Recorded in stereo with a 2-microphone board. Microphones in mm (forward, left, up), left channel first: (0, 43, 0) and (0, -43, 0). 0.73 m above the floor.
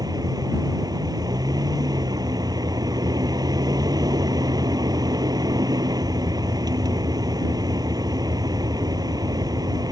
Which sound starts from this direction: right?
A vehicle, at 0.0 s.